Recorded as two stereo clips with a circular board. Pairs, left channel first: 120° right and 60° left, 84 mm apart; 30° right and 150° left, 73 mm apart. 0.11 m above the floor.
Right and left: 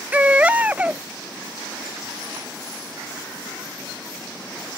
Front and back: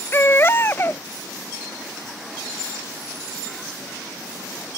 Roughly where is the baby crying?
Ahead.